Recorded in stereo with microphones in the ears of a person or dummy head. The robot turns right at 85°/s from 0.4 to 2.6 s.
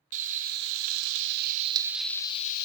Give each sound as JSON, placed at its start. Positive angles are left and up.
{"t": 0.1, "sound": "frying", "azimuth_deg": -135, "distance_m": 0.6}